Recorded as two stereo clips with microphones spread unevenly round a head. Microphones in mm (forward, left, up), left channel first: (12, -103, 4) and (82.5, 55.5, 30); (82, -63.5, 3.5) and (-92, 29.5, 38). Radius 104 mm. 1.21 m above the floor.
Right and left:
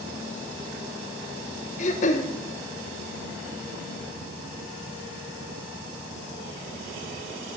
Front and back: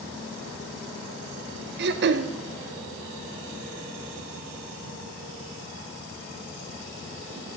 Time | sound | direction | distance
1.8 | throat clearing | 170° right | 0.7 m